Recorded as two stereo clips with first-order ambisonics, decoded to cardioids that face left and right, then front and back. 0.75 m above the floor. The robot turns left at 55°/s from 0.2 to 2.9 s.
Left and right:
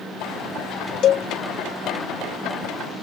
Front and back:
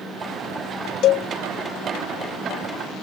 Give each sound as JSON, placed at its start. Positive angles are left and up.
{"t": 1.0, "sound": "a cowbell", "azimuth_deg": 40}